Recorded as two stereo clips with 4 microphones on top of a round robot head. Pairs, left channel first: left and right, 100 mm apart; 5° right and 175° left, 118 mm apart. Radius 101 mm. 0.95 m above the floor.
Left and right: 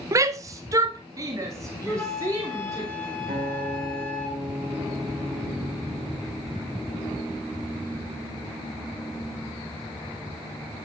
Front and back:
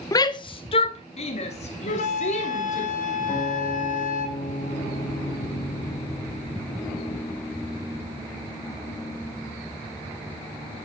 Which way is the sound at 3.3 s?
40° right.